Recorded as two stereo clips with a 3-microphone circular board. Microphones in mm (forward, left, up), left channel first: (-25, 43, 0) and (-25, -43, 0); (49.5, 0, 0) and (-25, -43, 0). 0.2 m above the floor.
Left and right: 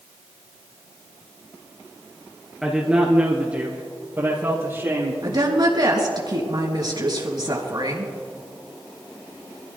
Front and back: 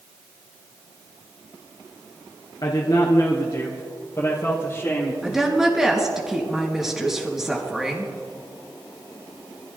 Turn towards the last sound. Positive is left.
turn(degrees=-65)